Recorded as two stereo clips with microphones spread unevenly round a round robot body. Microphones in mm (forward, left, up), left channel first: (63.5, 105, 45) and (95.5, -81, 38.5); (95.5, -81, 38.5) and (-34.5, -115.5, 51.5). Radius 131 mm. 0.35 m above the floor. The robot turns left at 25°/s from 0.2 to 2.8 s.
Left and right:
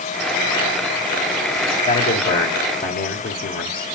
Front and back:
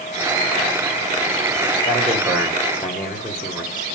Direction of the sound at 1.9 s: 115° left.